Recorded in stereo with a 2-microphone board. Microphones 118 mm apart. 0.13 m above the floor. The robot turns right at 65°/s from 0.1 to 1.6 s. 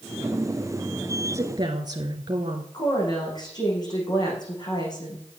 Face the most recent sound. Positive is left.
turn(degrees=35)  # may be behind; listen again after turning